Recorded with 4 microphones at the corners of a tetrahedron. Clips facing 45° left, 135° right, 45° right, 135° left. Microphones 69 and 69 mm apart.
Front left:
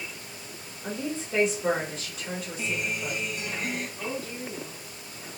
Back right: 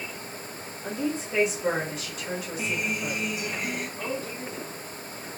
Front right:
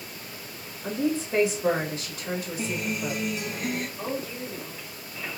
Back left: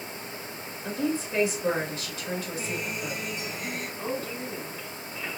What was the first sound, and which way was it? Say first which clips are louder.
A woman speaking: back right 3 dB, front right 2 dB; 50° right.